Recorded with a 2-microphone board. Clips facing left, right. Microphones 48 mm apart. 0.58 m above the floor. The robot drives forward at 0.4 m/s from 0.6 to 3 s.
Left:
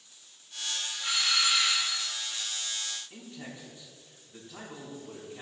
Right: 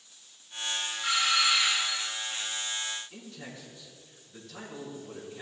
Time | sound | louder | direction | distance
1.0 | a doorbell | right 3 dB | 10° right (ahead or behind) | 1.5 m
3.1 | a man speaking | even | 30° left (ahead or behind) | 4 m